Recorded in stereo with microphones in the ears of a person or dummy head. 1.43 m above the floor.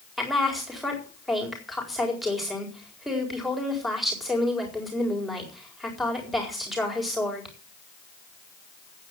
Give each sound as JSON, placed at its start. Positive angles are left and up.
{"t": 0.2, "sound": "a woman speaking", "side_deg": 0, "distance_m": 4.0}